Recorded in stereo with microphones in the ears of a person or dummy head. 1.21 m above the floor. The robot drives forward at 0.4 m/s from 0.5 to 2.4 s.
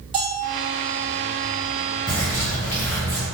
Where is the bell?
20° right (ahead or behind), 0.6 m.